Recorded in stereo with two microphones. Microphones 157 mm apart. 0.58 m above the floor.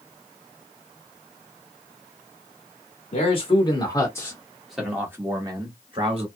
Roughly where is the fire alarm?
No fire alarm in this recording.